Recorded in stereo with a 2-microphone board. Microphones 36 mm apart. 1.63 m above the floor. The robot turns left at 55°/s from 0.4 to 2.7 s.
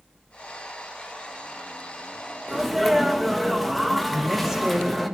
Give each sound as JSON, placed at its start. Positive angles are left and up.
{"t": 2.5, "sound": "a sneeze", "side_deg": -10, "distance_m": 3.0}
{"t": 4.1, "sound": "a woman speaking", "side_deg": -5, "distance_m": 8.5}